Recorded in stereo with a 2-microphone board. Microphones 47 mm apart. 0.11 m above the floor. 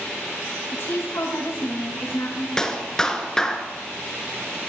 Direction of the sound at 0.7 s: 70° left (ahead or behind).